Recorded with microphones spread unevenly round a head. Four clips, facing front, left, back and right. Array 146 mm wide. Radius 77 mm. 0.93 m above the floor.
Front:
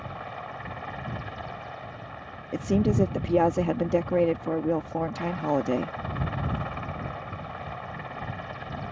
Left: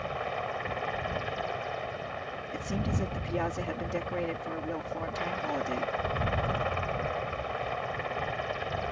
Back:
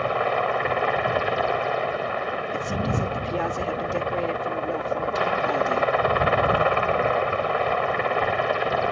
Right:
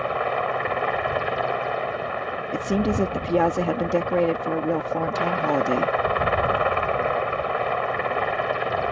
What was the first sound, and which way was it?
A helicopter, 145° right.